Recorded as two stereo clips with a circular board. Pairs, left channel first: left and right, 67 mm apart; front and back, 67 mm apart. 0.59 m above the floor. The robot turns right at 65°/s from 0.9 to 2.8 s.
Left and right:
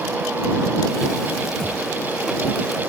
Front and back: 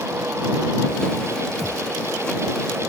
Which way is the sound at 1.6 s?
150° right.